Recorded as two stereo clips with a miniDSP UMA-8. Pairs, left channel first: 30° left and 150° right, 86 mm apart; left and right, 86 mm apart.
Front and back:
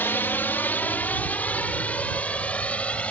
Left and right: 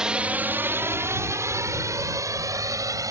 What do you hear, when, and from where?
0.0 s a drone: 15° right; by 3.1 s 45° right